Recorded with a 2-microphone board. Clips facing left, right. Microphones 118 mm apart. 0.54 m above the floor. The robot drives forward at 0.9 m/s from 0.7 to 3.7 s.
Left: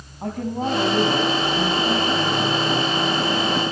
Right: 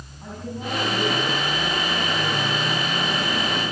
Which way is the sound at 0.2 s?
55° left (ahead or behind).